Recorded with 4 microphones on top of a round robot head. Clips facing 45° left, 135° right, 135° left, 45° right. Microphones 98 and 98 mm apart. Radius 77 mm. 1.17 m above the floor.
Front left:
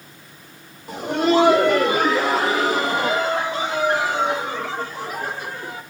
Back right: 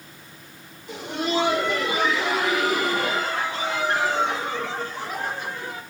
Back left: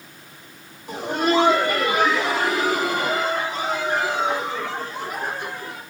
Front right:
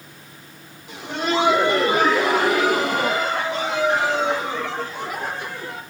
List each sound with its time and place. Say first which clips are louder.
0.9 s laughter: front left 8 dB, back left 3 dB; 80° left, 0.8 m; by 5.8 s 35° right, 4 m